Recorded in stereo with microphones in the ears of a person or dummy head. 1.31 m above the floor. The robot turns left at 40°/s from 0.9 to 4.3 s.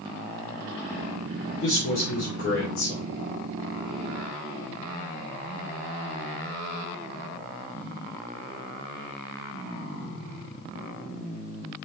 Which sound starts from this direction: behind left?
A man speaking, at 1.6 s.